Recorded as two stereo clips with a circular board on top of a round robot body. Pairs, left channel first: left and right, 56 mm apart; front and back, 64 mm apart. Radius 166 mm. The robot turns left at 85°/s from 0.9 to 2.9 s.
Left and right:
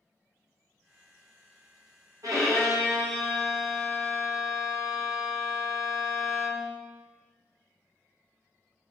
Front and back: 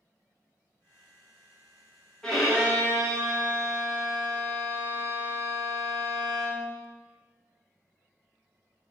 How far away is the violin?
About 1.0 m.